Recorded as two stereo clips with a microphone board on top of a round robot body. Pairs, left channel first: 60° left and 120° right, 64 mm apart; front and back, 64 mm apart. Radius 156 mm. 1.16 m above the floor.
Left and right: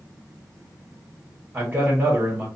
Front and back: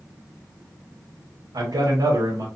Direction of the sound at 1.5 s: 165° left.